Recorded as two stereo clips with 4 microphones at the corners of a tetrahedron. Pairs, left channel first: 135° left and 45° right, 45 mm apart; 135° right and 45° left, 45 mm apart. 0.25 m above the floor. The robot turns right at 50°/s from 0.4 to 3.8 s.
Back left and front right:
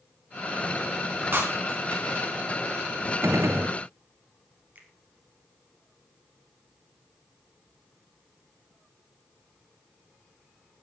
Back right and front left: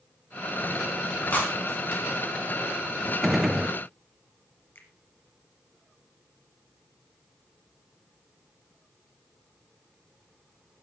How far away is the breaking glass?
About 5 m.